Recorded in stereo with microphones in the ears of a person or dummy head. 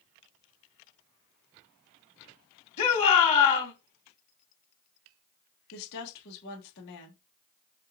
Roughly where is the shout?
Left.